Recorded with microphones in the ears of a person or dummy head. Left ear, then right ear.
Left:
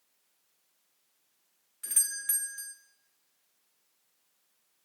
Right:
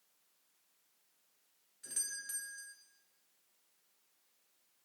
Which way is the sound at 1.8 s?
45° left (ahead or behind).